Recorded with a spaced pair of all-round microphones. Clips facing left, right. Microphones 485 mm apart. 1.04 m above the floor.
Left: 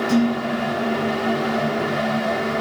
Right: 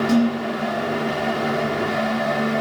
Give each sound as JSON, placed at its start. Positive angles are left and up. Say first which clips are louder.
{"t": 0.1, "sound": "dishes clattering", "louder": "left 1 dB", "side_deg": -55, "distance_m": 8.5}